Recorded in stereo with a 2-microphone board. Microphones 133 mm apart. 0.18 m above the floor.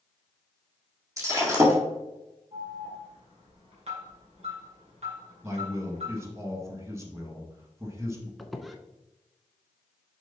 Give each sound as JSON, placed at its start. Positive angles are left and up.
{"t": 1.2, "sound": "breaking glass", "side_deg": -20, "distance_m": 2.0}
{"t": 2.5, "sound": "an alarm", "side_deg": -55, "distance_m": 3.5}
{"t": 5.4, "sound": "a man speaking", "side_deg": -20, "distance_m": 1.6}
{"t": 8.4, "sound": "a squeak", "side_deg": 0, "distance_m": 0.7}